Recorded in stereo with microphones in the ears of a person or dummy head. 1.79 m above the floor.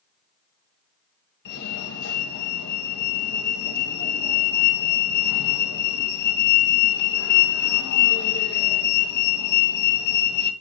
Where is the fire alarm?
60° left (ahead or behind), 4 m.